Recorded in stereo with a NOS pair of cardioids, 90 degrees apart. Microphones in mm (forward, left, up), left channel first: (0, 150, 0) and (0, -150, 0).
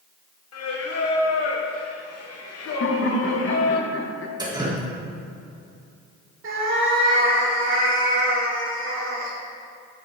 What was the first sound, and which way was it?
Singing, 55° left.